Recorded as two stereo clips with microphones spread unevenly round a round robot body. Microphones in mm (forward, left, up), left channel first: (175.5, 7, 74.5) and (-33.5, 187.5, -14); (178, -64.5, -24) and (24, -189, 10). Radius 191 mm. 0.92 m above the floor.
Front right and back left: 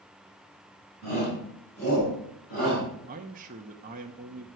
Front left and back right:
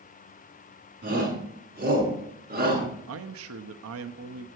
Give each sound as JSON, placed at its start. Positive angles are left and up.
{"t": 1.0, "sound": "a shout", "azimuth_deg": -110, "distance_m": 9.0}
{"t": 3.1, "sound": "a man speaking", "azimuth_deg": -160, "distance_m": 0.8}